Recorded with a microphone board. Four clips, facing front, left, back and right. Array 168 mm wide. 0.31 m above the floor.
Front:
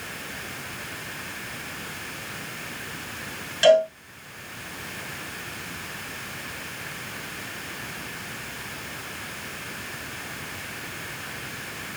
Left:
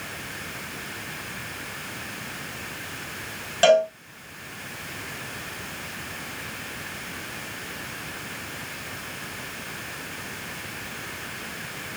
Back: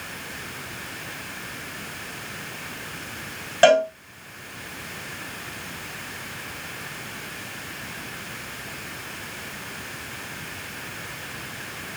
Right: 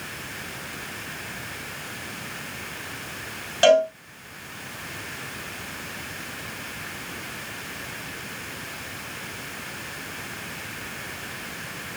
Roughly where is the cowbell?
Behind.